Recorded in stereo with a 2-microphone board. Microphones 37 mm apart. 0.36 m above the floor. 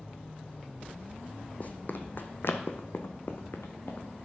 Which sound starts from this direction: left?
Running footsteps, at 1.6 s.